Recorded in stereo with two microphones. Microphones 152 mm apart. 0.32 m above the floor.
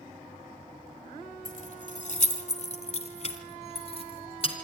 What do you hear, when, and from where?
1.4 s keys jangling: 55° left (ahead or behind), 1.3 m; by 4.5 s 40° left (ahead or behind), 3 m